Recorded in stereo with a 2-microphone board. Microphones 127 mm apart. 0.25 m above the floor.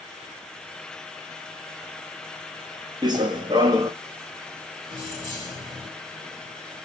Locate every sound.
3.0 s running footsteps: 35° right (ahead or behind), 1.1 m
4.9 s keys jangling: 25° right (ahead or behind), 3 m